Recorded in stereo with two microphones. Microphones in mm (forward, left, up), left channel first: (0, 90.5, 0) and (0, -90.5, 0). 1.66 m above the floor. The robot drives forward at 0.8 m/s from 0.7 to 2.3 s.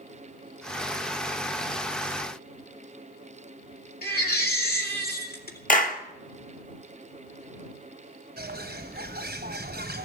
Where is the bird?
65° right (ahead or behind), 1.0 m.